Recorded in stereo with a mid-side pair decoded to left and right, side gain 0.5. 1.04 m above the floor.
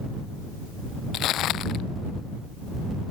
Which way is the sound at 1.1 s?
65° left.